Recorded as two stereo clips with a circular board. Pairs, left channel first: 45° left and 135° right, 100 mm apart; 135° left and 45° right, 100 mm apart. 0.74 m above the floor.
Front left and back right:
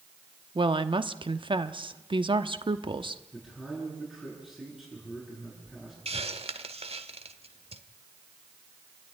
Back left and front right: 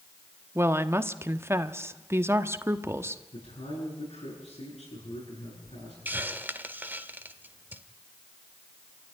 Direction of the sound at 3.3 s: 140° left.